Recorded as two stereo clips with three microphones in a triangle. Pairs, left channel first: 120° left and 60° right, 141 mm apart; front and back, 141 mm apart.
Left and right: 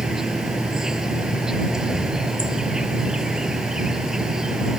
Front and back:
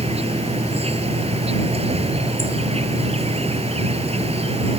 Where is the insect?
145° right.